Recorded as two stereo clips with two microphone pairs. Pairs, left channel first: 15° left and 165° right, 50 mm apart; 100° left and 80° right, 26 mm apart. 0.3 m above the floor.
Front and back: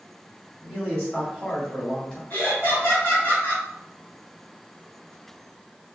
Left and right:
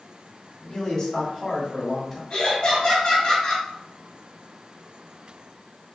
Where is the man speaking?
85° left, 2.0 m; by 2.2 s 60° left, 1.6 m.